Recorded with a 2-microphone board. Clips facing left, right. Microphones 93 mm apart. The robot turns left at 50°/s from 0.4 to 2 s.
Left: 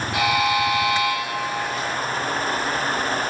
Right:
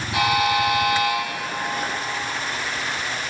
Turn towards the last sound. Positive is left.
turn(degrees=-90)